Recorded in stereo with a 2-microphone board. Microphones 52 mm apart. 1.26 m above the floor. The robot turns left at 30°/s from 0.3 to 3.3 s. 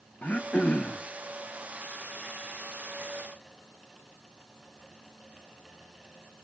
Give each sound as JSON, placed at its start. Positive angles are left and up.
{"t": 0.2, "sound": "throat clearing", "side_deg": 30, "distance_m": 0.5}